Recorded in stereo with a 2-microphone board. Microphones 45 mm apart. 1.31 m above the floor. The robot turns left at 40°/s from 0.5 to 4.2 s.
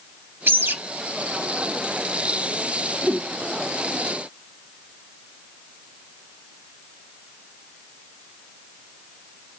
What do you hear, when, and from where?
0.5 s a bird: 65° right (ahead or behind), 2 m; by 0.8 s 55° right (ahead or behind), 2 m
3.0 s a whoosh: 55° right (ahead or behind), 1.9 m; by 3.3 s 45° right (ahead or behind), 1.9 m